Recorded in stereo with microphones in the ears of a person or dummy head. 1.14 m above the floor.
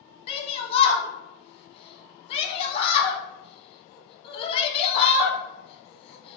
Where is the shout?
40° left (ahead or behind), 0.8 m.